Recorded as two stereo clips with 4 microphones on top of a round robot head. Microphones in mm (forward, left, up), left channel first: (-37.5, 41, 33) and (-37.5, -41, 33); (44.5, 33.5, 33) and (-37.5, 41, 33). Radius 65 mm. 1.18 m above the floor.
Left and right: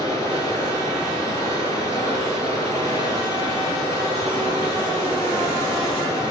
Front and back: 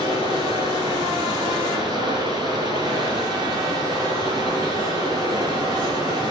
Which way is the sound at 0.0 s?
55° right.